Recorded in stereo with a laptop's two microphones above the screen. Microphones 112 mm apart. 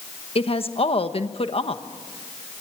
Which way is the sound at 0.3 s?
60° left (ahead or behind).